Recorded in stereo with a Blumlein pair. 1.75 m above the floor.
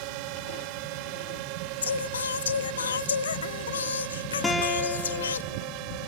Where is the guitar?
10° left.